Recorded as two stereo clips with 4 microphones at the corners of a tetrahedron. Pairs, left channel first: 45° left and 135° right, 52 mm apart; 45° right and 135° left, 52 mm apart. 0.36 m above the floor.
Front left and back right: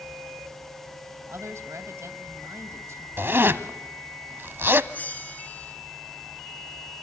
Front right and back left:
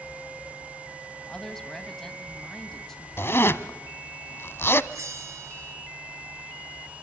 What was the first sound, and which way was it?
A woman speaking, 125° right.